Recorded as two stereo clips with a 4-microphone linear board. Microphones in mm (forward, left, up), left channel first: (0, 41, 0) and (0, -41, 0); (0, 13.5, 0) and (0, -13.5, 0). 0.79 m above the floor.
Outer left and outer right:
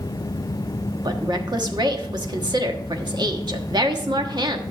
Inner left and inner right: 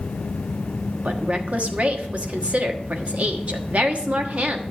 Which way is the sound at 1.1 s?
65° right (ahead or behind).